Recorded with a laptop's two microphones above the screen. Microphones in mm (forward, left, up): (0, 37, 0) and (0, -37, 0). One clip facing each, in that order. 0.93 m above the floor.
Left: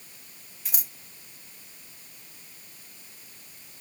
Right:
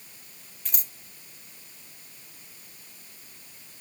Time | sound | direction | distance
0.7 | scissors | 10° left (ahead or behind) | 0.9 m